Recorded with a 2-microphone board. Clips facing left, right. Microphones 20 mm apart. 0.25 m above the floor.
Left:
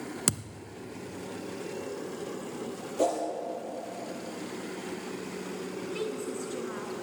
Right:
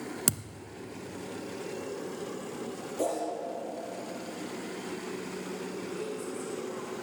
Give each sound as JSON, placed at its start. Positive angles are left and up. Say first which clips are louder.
{"t": 0.3, "sound": "a thud", "louder": "left 3 dB", "side_deg": 5, "distance_m": 0.9}
{"t": 3.0, "sound": "a whoosh", "louder": "left 4 dB", "side_deg": 20, "distance_m": 4.0}
{"t": 5.9, "sound": "a woman speaking", "louder": "left 5 dB", "side_deg": 55, "distance_m": 3.0}